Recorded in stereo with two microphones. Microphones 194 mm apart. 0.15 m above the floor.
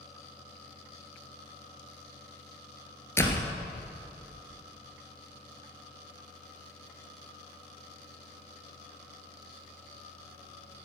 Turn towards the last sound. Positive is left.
turn(degrees=15)  # may be behind; listen again after turning